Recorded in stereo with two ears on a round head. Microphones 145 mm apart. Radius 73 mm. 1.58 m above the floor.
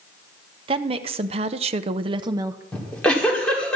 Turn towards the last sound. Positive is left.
turn(degrees=10)  # may be behind; listen again after turning